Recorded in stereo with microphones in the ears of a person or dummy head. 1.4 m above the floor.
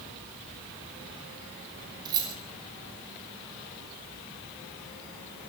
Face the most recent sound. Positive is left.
turn(degrees=-25)  # may be behind; listen again after turning